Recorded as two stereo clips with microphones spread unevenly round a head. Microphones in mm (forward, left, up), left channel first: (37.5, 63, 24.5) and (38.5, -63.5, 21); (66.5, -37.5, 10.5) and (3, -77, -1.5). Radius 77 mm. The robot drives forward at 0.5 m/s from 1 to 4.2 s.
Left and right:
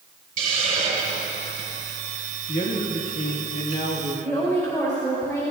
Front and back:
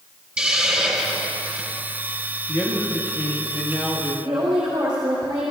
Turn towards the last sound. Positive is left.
turn(degrees=160)